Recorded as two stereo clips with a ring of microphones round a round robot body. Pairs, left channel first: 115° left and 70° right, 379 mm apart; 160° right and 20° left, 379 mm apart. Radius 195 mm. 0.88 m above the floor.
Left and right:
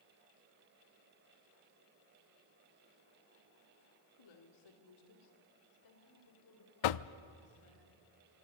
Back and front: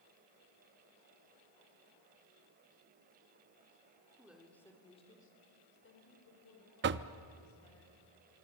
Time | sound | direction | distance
4.2 | a woman speaking | 105° left | 3 m
6.8 | knocking | 85° left | 0.6 m